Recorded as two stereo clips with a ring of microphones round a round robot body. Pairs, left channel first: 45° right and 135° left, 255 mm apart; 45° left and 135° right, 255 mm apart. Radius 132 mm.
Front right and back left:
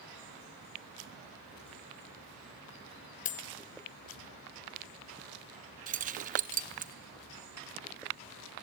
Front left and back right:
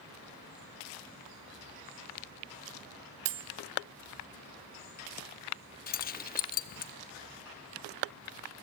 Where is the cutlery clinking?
105° right, 0.7 m.